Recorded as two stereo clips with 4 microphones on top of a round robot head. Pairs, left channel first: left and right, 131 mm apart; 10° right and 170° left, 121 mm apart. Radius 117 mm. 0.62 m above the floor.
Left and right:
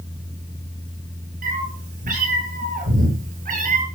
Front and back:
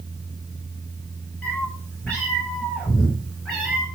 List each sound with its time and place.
1.4 s a cat meowing: 90° right, 7.5 m; by 3.9 s 100° right, 5.5 m